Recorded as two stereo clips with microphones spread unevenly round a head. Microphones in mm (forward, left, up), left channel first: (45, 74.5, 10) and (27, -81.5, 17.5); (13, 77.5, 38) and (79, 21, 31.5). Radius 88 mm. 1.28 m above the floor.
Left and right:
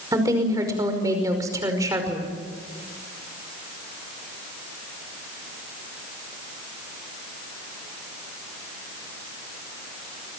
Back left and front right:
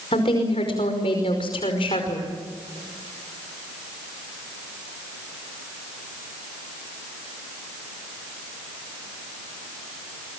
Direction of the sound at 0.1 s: 170° right.